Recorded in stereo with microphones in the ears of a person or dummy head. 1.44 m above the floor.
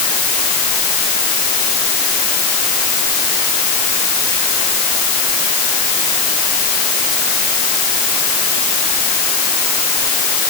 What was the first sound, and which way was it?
Only background noise.